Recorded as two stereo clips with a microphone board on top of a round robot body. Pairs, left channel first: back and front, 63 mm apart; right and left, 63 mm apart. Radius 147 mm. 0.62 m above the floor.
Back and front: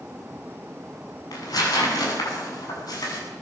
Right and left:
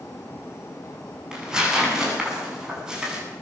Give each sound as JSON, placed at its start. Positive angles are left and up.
{"t": 1.3, "sound": "tearing paper", "azimuth_deg": 170, "distance_m": 8.5}